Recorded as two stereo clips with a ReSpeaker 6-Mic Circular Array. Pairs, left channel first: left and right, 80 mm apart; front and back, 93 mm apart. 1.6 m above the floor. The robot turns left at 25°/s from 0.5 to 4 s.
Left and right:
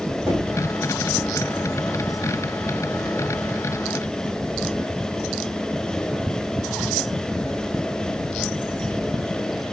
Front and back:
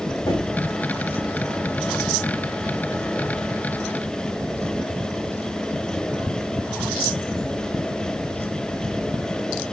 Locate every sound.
0.3 s knocking: 40° right, 2 m